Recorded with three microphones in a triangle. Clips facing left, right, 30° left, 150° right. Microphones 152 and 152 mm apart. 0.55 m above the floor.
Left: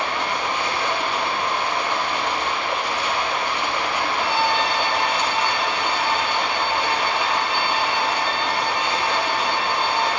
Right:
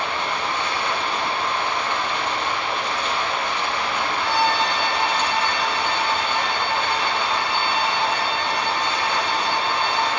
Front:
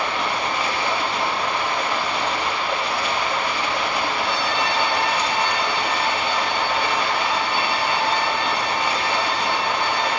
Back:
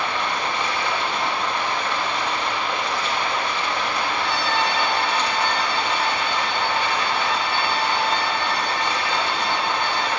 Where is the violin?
115° right, 2.5 m.